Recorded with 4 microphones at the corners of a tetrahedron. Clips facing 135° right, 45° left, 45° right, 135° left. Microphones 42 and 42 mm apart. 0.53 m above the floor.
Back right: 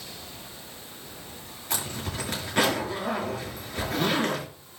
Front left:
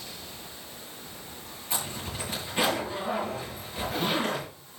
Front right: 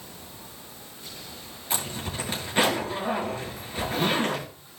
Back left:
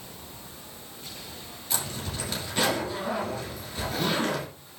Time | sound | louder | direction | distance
1.7 | a zipper | back right 2 dB, front right 2 dB | 105° right | 5.5 m